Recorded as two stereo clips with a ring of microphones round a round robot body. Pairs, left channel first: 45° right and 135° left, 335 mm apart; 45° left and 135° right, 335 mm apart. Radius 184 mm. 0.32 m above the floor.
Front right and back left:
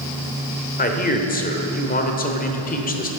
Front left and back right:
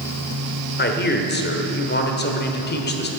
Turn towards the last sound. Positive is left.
turn(degrees=5)